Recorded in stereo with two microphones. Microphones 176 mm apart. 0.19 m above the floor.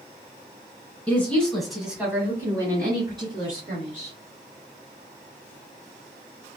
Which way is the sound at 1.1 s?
10° left (ahead or behind).